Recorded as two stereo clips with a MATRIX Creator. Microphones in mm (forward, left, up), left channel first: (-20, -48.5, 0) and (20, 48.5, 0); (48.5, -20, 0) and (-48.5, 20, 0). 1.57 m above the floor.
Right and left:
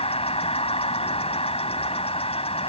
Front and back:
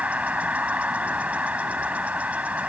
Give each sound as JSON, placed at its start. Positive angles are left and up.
{"t": 0.0, "sound": "an insect", "azimuth_deg": -125}